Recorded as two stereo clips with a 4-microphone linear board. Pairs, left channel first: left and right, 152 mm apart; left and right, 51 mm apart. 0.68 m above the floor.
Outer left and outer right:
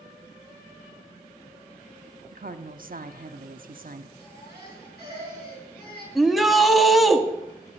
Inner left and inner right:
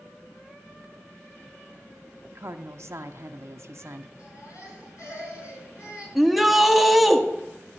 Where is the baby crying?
85° left, 7 m.